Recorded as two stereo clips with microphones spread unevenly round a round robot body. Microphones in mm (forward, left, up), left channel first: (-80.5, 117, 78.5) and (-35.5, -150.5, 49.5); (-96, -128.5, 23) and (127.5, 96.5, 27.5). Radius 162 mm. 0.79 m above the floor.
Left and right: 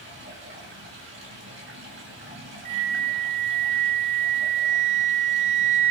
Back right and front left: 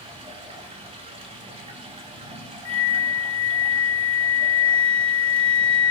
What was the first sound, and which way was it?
Running water, 25° right.